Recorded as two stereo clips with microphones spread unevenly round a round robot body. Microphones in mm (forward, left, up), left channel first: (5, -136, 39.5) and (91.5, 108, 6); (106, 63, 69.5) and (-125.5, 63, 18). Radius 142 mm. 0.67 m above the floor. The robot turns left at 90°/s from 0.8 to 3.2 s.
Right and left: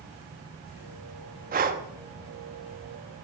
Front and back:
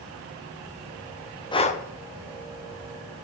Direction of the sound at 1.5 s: 80° left.